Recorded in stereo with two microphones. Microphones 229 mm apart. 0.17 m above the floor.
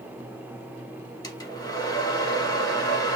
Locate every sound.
1.2 s a hair dryer: 15° left (ahead or behind), 0.6 m